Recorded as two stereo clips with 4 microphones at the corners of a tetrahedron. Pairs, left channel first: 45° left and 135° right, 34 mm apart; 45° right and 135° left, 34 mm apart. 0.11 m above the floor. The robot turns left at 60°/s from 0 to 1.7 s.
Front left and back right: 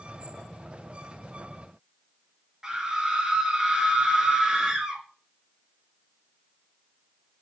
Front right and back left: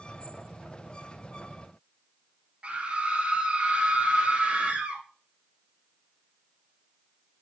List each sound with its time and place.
2.6 s a scream: 160° left, 2 m